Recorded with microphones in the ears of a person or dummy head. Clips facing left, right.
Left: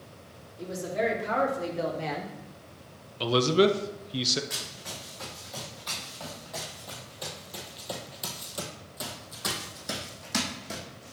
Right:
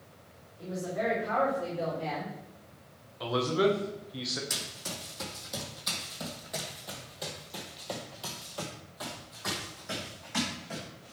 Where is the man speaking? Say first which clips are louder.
Left 5 dB; 40° left (ahead or behind), 0.6 m.